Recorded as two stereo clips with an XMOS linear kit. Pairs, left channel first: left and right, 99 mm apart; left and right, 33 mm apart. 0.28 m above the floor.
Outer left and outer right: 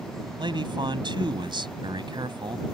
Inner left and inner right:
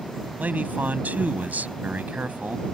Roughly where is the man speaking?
Right.